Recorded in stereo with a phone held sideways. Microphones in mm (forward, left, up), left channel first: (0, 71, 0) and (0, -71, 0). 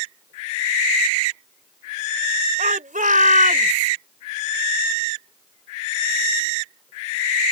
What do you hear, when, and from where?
2.6 s a shout: 70° right (ahead or behind); by 3.9 s 75° right (ahead or behind)